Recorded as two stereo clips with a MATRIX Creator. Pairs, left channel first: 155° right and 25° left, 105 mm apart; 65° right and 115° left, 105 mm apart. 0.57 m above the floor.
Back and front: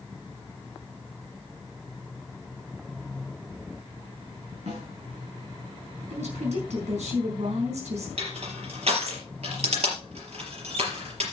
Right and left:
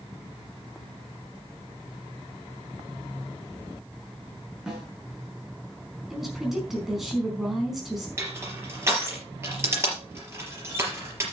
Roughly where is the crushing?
Ahead left.